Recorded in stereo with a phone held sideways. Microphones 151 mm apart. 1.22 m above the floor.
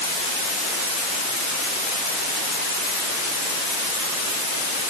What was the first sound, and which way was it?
Only background noise.